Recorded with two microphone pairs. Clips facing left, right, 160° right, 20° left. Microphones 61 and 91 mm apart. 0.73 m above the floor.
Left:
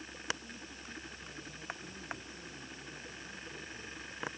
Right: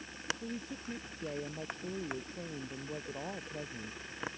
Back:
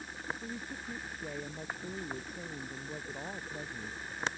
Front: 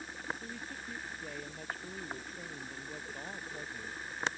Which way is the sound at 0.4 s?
80° right.